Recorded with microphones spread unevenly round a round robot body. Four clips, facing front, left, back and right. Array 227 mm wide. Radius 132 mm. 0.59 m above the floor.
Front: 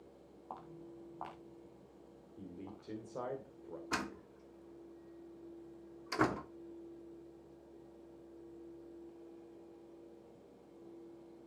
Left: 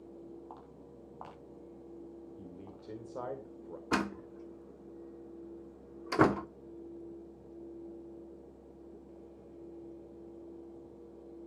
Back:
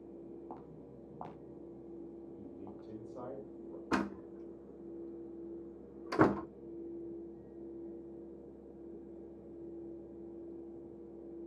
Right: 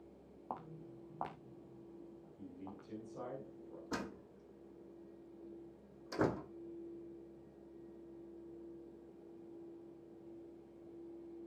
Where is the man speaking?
60° left, 2.5 m.